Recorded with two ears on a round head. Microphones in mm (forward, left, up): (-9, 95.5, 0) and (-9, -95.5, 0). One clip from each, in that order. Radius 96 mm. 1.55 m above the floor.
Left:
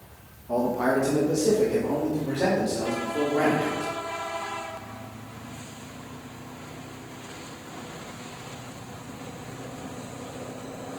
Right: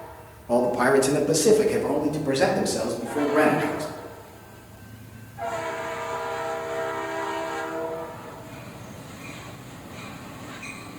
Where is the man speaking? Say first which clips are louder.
Right 4 dB; 65° right (ahead or behind), 1.2 m; by 3.9 s 60° right (ahead or behind), 3 m.